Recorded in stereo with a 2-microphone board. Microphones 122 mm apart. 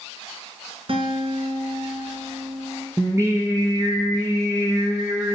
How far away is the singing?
About 2.5 m.